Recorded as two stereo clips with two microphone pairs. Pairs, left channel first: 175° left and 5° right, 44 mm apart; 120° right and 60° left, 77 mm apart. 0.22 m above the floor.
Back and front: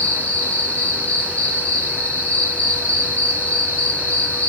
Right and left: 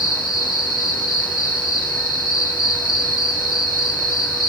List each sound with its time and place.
0.0 s an insect: 135° right, 2 m